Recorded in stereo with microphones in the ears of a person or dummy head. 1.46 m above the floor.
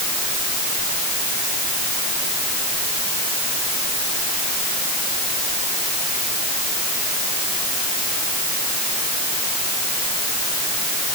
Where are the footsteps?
I don't hear footsteps.